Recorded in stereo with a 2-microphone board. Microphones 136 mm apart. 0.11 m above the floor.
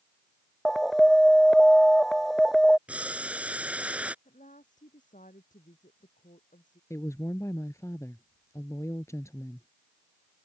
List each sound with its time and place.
0.7 s an alarm: centre (ahead or behind)
2.9 s boiling: 10° right (ahead or behind)
4.2 s a woman speaking: 75° left (ahead or behind)
6.9 s a woman speaking: 20° left (ahead or behind)